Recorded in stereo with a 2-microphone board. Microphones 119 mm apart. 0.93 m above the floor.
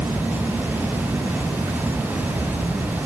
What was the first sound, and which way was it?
Only background noise.